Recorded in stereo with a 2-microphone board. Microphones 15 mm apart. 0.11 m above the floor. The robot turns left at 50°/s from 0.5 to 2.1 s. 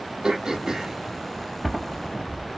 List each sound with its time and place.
0.2 s throat clearing: 45° right (ahead or behind), 1.3 m; by 2.6 s 30° left (ahead or behind), 1.3 m